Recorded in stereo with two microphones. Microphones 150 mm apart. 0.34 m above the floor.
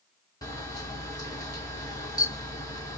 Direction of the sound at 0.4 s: 25° left (ahead or behind).